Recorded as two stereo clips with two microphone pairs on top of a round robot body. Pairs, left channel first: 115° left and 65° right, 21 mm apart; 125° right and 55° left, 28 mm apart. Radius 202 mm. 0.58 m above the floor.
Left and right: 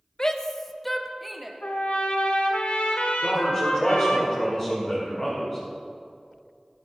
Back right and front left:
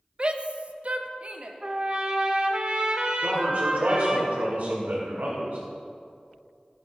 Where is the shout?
75° left, 1.1 m; by 1.5 s 20° left, 1.8 m.